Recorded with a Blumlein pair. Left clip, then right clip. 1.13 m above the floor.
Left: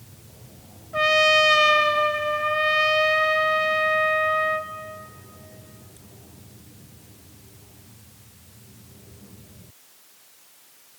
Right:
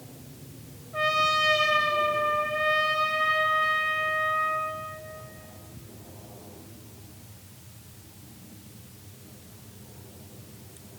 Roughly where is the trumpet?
Left.